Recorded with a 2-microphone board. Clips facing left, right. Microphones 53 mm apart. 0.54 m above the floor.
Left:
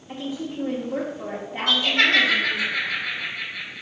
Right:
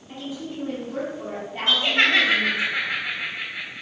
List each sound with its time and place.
0.1 s a woman speaking: 20° left (ahead or behind), 0.9 m
1.7 s laughter: 35° right (ahead or behind), 1.4 m